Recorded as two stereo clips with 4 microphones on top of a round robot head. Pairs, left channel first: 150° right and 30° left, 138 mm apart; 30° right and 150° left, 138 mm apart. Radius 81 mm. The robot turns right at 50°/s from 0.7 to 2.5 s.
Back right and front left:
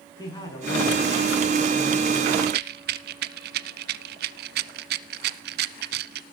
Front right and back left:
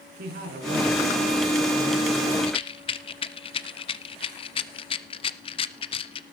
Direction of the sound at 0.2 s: 150° left.